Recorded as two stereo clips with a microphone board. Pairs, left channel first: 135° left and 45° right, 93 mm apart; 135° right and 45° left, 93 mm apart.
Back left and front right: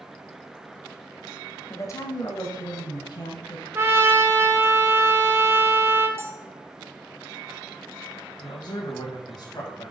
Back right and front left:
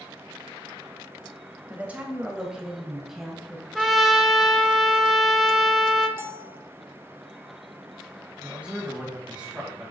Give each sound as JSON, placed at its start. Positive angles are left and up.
{"t": 1.7, "sound": "a woman speaking", "azimuth_deg": 105, "distance_m": 1.4}
{"t": 3.8, "sound": "a trumpet", "azimuth_deg": -40, "distance_m": 0.9}
{"t": 6.2, "sound": "a bell", "azimuth_deg": 0, "distance_m": 0.6}
{"t": 8.4, "sound": "a man speaking", "azimuth_deg": 120, "distance_m": 2.5}